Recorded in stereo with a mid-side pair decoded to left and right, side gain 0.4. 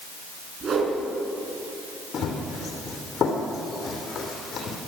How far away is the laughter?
I don't hear laughter.